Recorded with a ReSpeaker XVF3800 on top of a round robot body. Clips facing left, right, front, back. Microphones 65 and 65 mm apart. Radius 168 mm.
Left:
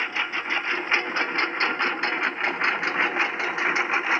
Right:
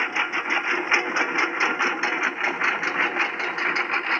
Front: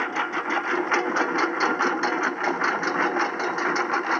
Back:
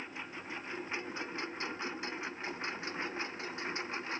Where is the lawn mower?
15° right; by 4.2 s 5° left.